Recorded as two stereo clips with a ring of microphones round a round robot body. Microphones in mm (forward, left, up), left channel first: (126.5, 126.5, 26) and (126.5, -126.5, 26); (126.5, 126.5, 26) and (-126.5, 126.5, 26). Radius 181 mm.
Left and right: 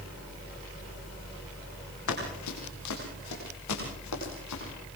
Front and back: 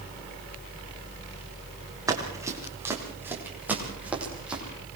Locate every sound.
2.1 s running footsteps: 105° left, 6.5 m; by 4.6 s 95° left, 10 m